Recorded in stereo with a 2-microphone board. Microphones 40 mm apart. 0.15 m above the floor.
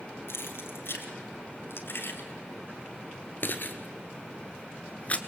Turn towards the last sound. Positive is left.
turn(degrees=30)  # may be behind; listen again after turning